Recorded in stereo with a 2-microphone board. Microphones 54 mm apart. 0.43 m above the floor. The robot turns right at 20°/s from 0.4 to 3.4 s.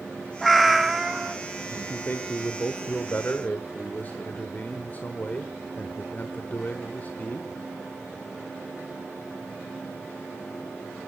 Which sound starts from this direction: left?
A man speaking, at 1.7 s.